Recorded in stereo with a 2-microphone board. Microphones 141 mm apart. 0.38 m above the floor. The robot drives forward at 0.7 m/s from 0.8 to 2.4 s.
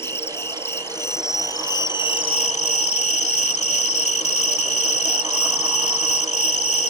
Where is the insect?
15° left (ahead or behind); by 6.9 s 50° left (ahead or behind).